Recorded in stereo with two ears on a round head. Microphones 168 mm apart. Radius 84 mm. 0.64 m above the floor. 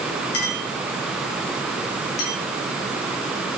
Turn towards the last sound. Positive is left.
turn(degrees=60)  # may be behind; listen again after turning